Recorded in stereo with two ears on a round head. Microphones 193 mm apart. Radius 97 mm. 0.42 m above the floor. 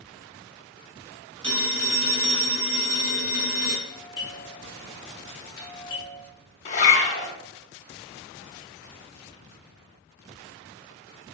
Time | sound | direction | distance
1.4 | a phone ringing | 30° right (ahead or behind) | 2 m
3.9 | a doorbell | 25° left (ahead or behind) | 1.3 m
6.7 | a zipper | 35° left (ahead or behind) | 0.9 m